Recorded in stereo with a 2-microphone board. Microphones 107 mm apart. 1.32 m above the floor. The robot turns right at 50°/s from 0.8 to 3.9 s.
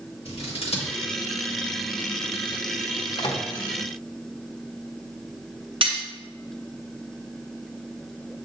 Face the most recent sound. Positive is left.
turn(degrees=-55)  # may be behind; listen again after turning